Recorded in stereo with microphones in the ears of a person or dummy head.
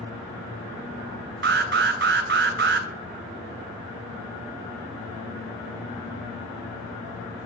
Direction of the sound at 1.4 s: 40° right (ahead or behind).